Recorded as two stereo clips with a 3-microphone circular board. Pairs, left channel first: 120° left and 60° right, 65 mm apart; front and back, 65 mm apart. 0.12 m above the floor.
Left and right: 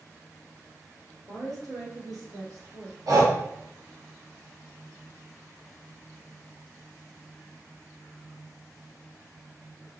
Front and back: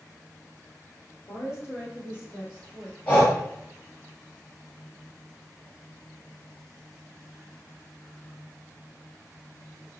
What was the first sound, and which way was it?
A woman speaking, 35° right.